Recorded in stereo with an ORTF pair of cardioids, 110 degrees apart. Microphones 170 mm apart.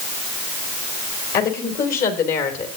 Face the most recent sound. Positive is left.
turn(degrees=65)